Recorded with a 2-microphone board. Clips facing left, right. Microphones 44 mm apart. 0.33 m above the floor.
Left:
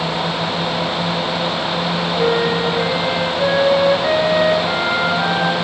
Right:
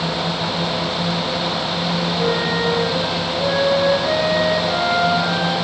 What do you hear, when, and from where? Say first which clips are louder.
2.2 s a flute: left 5 dB; 50° left (ahead or behind), 9.5 m